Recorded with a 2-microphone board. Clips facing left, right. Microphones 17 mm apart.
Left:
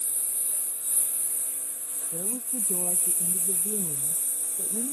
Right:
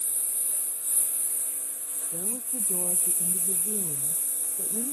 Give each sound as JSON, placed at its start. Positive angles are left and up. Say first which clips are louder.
{"t": 0.0, "sound": "a lawn mower", "louder": "even", "side_deg": 25}
{"t": 2.1, "sound": "a woman speaking", "louder": "left 2 dB", "side_deg": 35}